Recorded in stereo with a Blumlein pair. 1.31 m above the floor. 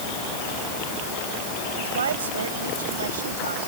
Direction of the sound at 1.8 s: 65° right.